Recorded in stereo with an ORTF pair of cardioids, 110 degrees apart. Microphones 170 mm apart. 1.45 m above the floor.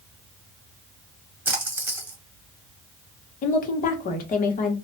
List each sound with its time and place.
1.4 s a splash: 10° right, 1.1 m
3.4 s a woman speaking: 55° left, 1.1 m